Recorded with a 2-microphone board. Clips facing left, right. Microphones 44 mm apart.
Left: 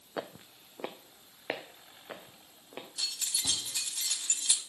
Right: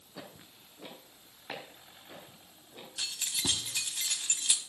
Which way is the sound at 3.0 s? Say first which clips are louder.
Right 2 dB; 35° right (ahead or behind).